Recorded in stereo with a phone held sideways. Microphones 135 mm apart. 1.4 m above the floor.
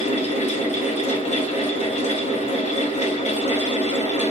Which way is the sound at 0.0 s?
55° left (ahead or behind).